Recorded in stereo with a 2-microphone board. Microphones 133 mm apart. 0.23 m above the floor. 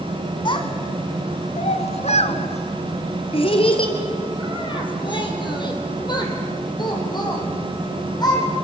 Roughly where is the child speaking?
Left.